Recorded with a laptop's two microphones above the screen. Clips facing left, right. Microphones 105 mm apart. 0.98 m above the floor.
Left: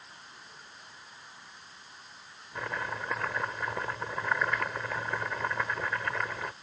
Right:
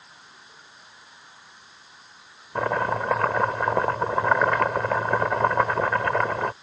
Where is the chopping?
60° right (ahead or behind).